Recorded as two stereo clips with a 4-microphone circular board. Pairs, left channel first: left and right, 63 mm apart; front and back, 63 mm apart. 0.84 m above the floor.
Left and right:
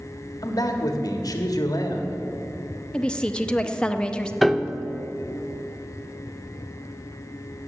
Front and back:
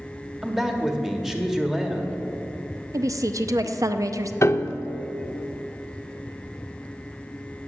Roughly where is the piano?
Ahead.